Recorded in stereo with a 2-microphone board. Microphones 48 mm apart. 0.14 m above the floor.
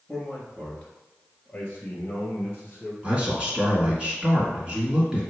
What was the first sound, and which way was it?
A man speaking, 10° left (ahead or behind).